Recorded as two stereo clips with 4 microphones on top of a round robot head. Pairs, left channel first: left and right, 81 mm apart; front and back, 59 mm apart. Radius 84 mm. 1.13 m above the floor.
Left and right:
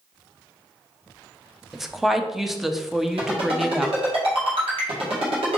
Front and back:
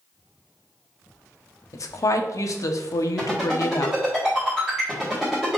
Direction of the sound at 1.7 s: 5° right.